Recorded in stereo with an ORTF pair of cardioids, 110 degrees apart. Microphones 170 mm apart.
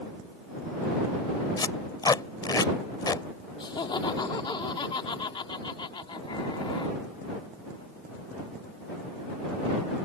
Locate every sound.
1.6 s tape being pulled: 25° left
3.6 s laughter: 25° left